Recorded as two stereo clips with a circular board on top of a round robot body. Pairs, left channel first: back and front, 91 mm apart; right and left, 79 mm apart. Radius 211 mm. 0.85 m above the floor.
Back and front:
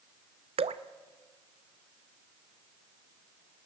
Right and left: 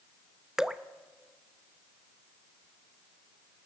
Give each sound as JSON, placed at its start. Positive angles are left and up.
{"t": 0.6, "sound": "dripping", "azimuth_deg": 5, "distance_m": 0.6}